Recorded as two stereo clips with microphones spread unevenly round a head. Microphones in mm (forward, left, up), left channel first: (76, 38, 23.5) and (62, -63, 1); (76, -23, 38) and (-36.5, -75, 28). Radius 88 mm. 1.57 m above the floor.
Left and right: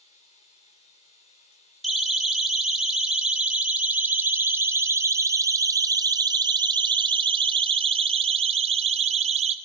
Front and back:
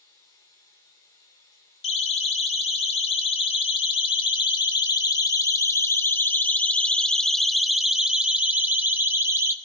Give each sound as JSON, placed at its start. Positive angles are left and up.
{"t": 0.0, "sound": "running water", "azimuth_deg": 90, "distance_m": 3.5}
{"t": 1.8, "sound": "a siren", "azimuth_deg": -5, "distance_m": 3.5}